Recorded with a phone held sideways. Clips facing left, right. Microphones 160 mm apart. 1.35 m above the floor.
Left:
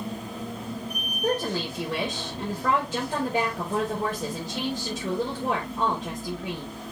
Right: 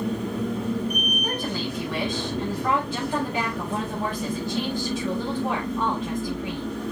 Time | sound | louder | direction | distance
0.0 | a machine running | right 7 dB | 60° right (ahead or behind) | 2 m
1.2 | a woman speaking | left 2 dB | 40° left (ahead or behind) | 4.5 m